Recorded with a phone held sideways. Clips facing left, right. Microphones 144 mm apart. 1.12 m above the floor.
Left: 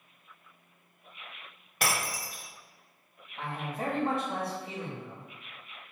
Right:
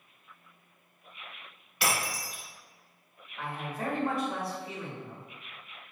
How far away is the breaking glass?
About 1.5 m.